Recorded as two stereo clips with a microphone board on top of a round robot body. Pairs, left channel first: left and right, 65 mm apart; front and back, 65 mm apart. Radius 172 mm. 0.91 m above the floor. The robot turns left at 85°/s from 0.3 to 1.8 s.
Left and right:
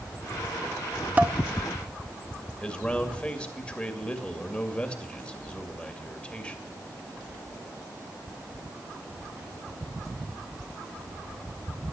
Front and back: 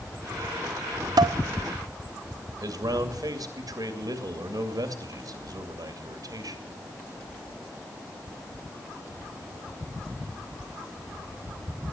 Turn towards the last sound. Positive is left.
turn(degrees=160)